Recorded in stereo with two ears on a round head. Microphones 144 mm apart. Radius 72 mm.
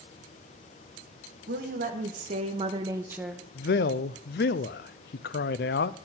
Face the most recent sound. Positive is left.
turn(degrees=65)  # may be behind; listen again after turning